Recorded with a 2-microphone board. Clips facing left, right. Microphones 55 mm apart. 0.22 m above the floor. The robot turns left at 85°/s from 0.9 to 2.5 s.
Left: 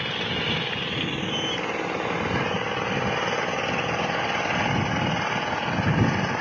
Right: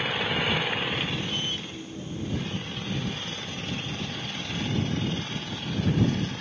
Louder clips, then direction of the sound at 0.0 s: Right 1 dB; 175° right.